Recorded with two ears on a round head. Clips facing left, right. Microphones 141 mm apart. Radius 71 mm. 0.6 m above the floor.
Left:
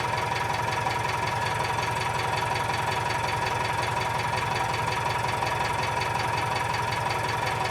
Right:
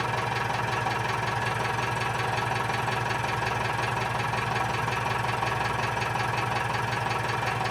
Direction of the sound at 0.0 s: 10° left (ahead or behind).